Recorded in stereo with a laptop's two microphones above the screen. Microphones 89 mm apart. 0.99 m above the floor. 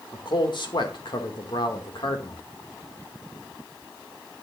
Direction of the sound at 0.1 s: 60° left (ahead or behind).